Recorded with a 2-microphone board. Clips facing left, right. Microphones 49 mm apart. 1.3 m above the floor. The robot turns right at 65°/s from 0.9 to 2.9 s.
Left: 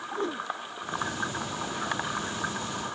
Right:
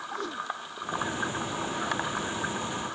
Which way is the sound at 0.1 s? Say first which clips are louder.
Left 4 dB; 30° left (ahead or behind).